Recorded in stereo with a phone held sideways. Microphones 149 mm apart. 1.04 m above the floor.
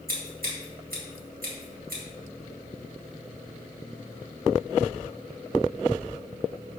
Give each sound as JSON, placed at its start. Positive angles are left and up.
{"t": 0.1, "sound": "scissors", "side_deg": -85, "distance_m": 1.6}